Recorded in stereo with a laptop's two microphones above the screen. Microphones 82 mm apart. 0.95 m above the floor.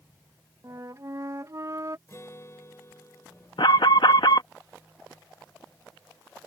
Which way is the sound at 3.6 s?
70° left (ahead or behind).